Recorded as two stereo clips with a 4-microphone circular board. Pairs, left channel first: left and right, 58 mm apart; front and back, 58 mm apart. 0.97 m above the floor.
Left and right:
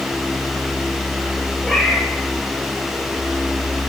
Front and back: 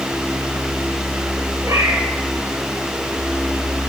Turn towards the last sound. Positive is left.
turn(degrees=170)